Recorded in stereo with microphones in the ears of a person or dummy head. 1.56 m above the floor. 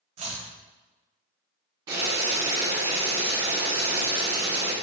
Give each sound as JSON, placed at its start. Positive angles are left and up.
{"t": 0.2, "sound": "chopping", "side_deg": -40, "distance_m": 0.6}
{"t": 1.9, "sound": "boiling", "side_deg": -30, "distance_m": 1.2}